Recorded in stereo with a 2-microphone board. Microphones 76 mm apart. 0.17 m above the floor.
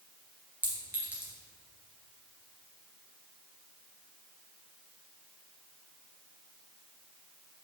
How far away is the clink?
About 2 m.